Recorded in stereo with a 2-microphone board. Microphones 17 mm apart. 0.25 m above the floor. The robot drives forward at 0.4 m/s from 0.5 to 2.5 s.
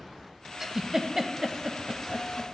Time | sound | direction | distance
0.6 | a giggle | 20° right (ahead or behind) | 0.5 m